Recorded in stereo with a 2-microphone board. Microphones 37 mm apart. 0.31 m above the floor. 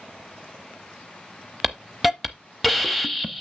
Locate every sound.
1.6 s a hiss: centre (ahead or behind), 0.7 m